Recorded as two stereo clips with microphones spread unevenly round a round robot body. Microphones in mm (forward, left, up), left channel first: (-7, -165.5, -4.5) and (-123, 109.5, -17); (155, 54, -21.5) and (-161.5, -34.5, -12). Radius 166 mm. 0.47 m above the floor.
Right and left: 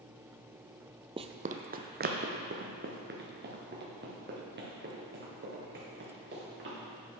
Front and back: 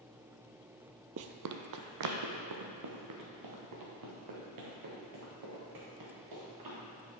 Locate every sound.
1.2 s running footsteps: straight behind, 0.5 m; by 6.8 s 170° left, 4.5 m